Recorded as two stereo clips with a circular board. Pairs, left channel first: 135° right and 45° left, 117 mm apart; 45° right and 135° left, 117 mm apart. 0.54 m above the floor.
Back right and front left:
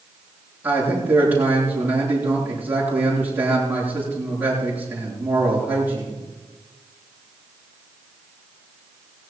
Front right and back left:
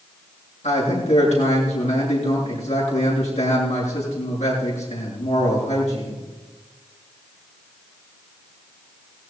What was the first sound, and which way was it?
A man speaking, 30° right.